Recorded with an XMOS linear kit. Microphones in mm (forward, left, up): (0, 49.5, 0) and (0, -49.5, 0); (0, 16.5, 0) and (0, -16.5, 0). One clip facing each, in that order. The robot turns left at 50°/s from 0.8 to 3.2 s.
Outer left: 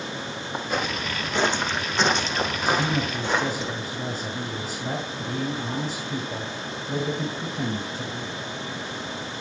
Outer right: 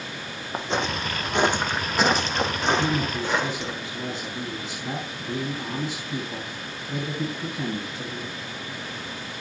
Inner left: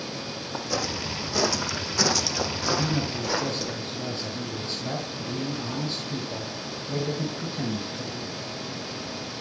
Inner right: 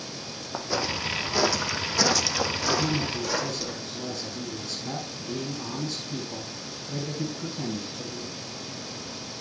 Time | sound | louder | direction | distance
0.5 | footsteps | outer right 2 dB, inner right 1 dB | 25° right (ahead or behind) | 2 m
2.8 | a man speaking | outer right 1 dB, even | 65° left (ahead or behind) | 2.5 m